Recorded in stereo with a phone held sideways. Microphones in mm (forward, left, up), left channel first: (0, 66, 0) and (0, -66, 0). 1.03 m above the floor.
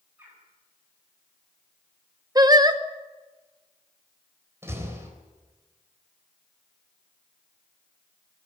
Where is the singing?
30° right (ahead or behind), 0.9 m.